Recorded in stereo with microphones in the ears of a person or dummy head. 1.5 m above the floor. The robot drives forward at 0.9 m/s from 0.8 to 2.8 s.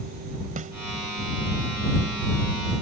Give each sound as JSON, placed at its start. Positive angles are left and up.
{"t": 0.6, "sound": "a snare drum", "side_deg": -35}